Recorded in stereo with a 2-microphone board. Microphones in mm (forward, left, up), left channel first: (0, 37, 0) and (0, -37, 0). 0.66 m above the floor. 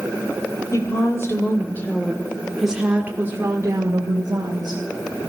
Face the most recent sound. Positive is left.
turn(degrees=-65)  # may be behind; listen again after turning